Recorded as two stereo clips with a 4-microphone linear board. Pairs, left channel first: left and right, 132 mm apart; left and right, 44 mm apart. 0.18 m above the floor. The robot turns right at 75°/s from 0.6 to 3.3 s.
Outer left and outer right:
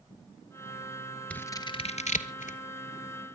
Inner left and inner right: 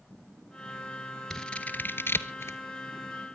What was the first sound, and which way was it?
Scissors, 10° left (ahead or behind).